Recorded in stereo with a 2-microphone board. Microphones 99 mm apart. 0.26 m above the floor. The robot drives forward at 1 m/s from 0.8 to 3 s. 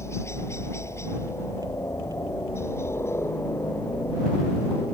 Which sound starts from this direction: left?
A helicopter, at 0.0 s.